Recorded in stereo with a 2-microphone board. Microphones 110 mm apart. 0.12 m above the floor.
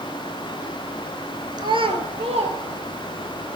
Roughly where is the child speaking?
Right.